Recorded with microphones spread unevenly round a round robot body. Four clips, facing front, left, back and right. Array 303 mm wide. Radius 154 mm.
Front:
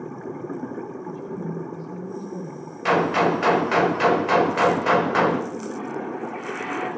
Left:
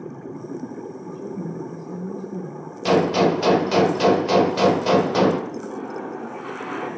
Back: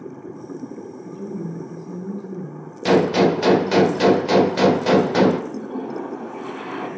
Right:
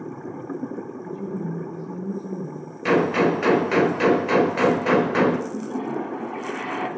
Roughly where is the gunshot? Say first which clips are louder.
Left 1 dB, back 4 dB; behind.